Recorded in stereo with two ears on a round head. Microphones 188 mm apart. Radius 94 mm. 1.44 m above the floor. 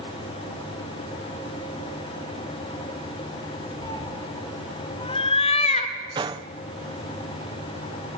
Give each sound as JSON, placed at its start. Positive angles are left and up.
{"t": 3.8, "sound": "a cat meowing", "side_deg": 20, "distance_m": 4.0}
{"t": 6.2, "sound": "a gunshot", "side_deg": -20, "distance_m": 0.6}